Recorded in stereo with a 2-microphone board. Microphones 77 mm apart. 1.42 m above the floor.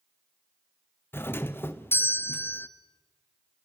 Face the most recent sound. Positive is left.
turn(degrees=30)  # may be behind; listen again after turning